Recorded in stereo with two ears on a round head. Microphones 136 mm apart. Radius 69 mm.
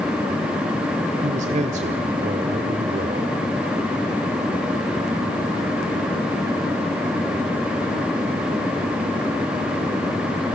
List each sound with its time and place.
1.2 s a man speaking: 50° right (ahead or behind), 1.4 m